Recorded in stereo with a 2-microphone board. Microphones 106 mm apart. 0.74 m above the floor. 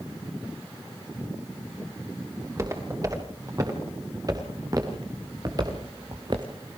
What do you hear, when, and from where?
2.4 s footsteps: 30° right (ahead or behind), 7.5 m; by 6.5 s 45° right (ahead or behind), 3 m